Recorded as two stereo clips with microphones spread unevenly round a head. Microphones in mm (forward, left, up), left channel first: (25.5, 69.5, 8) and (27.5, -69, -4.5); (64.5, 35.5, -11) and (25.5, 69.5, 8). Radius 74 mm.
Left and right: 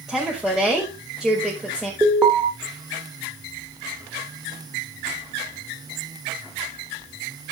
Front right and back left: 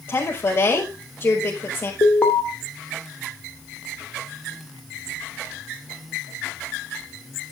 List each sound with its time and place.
0.1 s a woman speaking: 5° left, 5 m
2.0 s an alarm: 10° right, 2.5 m